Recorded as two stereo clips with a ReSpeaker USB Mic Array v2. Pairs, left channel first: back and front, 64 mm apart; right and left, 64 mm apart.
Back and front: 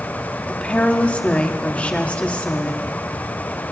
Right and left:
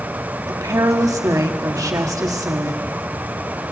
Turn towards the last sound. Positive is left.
turn(degrees=115)